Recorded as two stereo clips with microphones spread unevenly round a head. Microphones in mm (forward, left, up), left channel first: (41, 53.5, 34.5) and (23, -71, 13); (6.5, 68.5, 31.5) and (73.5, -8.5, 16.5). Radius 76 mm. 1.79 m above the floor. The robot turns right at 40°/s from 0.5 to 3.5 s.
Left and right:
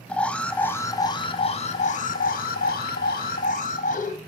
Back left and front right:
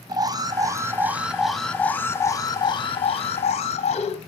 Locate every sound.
0.1 s an alarm: straight ahead, 1.4 m; by 4.2 s 120° left, 1.4 m